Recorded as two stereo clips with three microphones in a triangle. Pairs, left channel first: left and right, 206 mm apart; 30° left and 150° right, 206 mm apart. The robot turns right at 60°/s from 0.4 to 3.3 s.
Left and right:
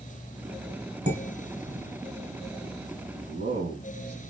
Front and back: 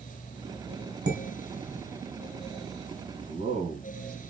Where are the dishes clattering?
135° right, 1.5 m; by 1.8 s 90° right, 1.5 m.